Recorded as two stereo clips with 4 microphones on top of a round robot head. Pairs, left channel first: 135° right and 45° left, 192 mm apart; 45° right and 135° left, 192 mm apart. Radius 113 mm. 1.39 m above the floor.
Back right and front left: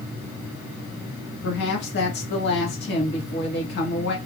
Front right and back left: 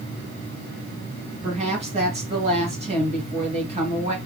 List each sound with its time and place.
1.4 s a woman speaking: 170° right, 2.5 m